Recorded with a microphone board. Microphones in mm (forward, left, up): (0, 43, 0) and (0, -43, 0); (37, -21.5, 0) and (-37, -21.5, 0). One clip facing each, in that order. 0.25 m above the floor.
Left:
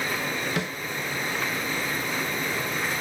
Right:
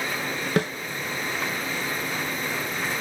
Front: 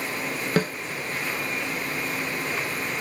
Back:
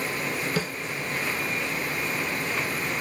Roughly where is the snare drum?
Ahead right.